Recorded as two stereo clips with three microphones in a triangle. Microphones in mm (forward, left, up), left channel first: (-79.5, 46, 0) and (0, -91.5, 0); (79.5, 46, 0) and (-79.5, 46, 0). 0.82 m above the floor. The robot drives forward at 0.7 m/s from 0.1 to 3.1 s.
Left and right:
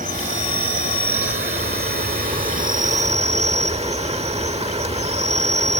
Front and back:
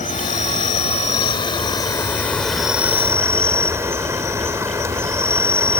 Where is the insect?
35° right; by 5.8 s 110° right.